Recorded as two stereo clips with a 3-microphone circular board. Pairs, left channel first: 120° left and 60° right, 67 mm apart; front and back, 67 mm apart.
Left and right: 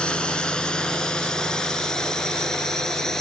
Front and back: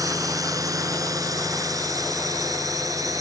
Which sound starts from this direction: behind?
A drone, at 0.0 s.